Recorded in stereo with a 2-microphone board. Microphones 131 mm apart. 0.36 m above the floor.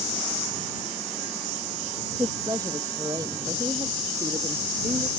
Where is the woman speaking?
30° right (ahead or behind); by 5.1 s 40° right (ahead or behind).